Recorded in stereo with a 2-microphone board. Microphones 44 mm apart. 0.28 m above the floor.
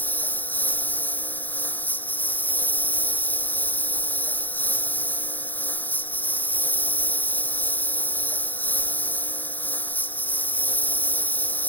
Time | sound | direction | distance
0.0 | a lawn mower | 45° left (ahead or behind) | ?